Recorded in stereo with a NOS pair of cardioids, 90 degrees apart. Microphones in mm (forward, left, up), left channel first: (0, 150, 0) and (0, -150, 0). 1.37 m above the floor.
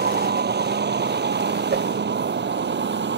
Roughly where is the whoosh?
Ahead right.